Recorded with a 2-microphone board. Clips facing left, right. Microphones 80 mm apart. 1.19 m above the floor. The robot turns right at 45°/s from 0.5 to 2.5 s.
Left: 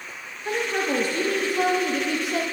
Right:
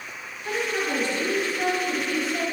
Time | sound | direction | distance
0.5 | a woman speaking | 20° left | 1.0 m